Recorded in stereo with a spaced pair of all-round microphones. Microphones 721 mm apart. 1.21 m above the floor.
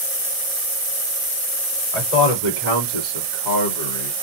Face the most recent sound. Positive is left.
turn(degrees=75)  # may be behind; listen again after turning